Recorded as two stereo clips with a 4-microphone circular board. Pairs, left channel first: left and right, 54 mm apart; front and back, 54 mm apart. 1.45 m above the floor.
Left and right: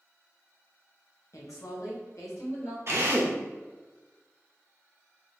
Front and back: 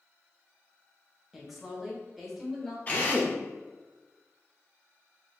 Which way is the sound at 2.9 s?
60° right.